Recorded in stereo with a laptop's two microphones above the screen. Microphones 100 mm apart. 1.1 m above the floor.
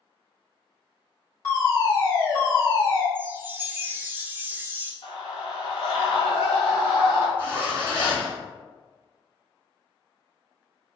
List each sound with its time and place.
1.4 s a fire alarm: 25° left (ahead or behind), 1.9 m
3.1 s a chime: 25° right (ahead or behind), 0.5 m
5.0 s a scream: 75° left (ahead or behind), 1.1 m
7.4 s a zipper: 20° left (ahead or behind), 1.9 m